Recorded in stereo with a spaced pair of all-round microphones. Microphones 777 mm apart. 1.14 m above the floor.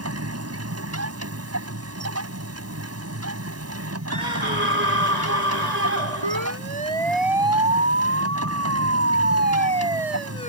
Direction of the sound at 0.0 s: 20° right (ahead or behind).